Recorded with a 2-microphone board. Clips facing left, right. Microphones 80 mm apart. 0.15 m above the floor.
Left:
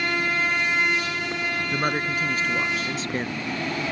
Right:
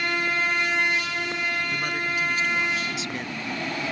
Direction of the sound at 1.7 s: 40° left (ahead or behind).